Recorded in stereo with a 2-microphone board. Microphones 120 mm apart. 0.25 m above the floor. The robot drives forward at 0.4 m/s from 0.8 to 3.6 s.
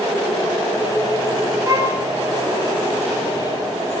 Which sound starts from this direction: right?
A violin, at 1.6 s.